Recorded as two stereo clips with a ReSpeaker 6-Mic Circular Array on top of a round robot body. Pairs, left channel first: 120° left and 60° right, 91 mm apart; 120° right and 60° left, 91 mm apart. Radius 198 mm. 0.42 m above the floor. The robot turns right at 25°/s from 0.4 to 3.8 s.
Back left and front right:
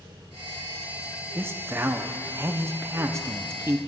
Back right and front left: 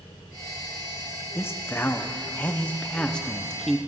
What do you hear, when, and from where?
1.4 s a man speaking: 95° right, 0.9 m; by 3.8 s 35° right, 0.9 m